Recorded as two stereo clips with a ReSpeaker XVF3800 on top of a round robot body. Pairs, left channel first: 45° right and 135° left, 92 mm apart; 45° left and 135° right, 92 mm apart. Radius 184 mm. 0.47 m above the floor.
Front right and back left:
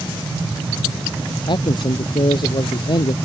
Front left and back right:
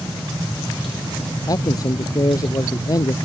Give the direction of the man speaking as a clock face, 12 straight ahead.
12 o'clock.